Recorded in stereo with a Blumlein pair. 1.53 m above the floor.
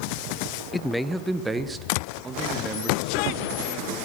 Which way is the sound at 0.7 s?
10° left.